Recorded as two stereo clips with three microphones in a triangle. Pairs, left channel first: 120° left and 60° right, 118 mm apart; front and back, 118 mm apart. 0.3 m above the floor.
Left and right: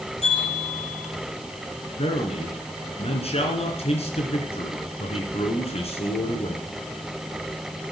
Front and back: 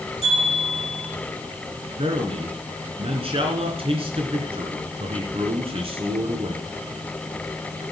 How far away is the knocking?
I don't hear knocking.